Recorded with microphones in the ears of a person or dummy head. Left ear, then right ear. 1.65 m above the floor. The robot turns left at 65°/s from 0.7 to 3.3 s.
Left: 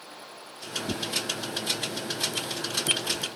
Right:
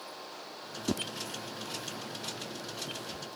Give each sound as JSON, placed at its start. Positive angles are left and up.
{"t": 0.9, "sound": "tearing paper", "side_deg": -65}